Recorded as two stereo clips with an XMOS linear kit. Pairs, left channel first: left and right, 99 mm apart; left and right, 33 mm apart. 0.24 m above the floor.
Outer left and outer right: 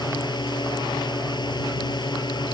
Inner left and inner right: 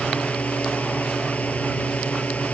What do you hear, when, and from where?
0.0 s a drone: 50° left (ahead or behind)